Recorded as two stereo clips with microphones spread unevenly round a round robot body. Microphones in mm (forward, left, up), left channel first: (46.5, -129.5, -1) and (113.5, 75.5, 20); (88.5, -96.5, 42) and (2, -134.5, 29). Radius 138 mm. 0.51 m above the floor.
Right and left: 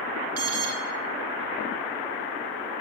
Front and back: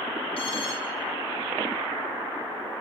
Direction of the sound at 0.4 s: 75° left.